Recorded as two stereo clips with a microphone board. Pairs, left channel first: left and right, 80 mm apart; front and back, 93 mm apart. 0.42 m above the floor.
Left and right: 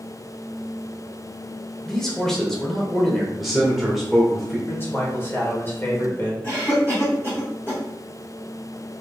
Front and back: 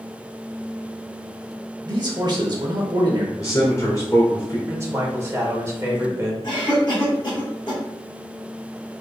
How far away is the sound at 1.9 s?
About 1.0 m.